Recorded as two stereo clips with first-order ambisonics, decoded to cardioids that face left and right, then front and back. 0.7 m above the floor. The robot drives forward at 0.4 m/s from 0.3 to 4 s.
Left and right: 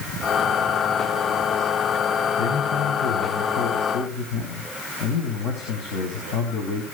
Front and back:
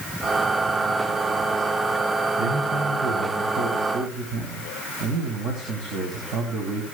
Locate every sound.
2.4 s a man speaking: 125° left, 4 m; by 6.8 s 130° left, 4.5 m